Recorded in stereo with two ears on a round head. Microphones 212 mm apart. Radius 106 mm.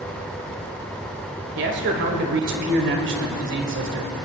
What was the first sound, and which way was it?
A man speaking, 50° right (ahead or behind).